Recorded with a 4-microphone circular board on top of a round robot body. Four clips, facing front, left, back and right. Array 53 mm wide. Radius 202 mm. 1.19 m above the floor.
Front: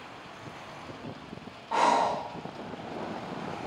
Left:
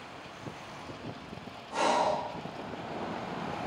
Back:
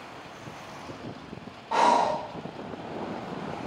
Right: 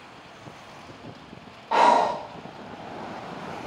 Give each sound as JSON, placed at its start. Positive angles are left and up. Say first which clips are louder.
{"t": 1.7, "sound": "breathing", "louder": "right 9 dB, back 2 dB", "azimuth_deg": -95, "distance_m": 0.7}